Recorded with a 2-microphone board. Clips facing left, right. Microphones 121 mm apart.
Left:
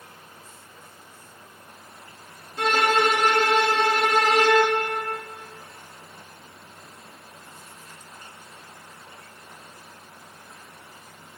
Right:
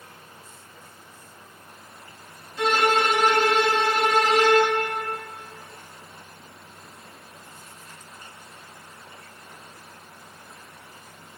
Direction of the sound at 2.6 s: 55° left (ahead or behind).